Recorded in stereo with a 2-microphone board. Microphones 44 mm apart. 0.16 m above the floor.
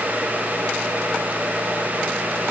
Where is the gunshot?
I don't hear a gunshot.